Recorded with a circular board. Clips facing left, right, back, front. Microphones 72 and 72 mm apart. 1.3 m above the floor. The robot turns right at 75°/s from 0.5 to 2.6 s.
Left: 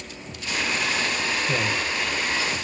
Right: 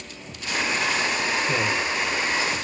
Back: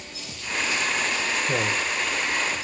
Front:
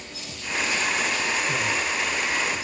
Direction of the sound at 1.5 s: Straight behind.